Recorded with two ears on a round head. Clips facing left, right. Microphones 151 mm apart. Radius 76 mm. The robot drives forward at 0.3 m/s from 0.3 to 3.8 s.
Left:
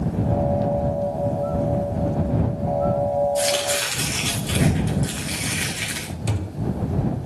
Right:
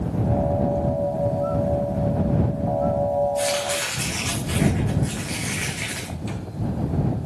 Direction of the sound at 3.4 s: 40° left (ahead or behind).